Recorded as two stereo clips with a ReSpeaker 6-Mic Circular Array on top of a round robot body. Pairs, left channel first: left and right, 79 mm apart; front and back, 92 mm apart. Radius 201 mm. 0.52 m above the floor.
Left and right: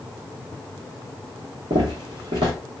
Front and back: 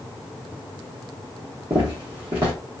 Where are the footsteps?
115° right, 0.7 m.